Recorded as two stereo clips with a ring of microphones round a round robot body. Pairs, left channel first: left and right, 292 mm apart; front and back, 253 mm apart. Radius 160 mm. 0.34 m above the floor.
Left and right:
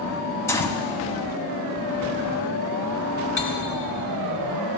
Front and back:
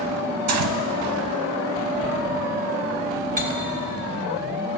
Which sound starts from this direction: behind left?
Cutlery clinking, at 3.4 s.